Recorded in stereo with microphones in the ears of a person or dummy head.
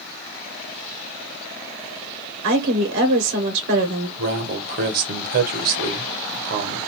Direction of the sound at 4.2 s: 50° right (ahead or behind).